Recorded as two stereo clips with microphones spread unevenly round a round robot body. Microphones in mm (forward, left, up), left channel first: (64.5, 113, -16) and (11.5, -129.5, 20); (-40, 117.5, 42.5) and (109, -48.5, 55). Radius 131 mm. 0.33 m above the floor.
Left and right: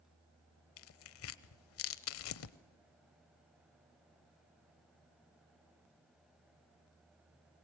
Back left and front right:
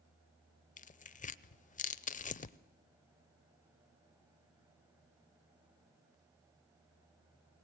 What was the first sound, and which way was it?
Tearing paper, 80° left.